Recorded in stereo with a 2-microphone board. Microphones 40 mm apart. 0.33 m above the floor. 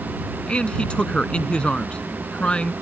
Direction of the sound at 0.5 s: 25° left (ahead or behind).